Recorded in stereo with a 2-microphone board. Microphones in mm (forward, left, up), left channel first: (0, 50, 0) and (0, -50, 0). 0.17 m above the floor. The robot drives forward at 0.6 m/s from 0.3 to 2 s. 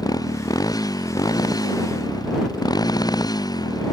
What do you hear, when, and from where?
0.0 s a motorcycle: 40° left (ahead or behind)